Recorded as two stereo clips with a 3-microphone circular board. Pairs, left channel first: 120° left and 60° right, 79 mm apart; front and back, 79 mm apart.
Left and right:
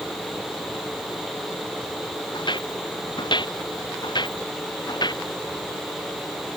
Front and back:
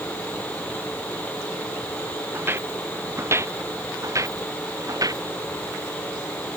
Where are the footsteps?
120° left; by 5.2 s 140° left.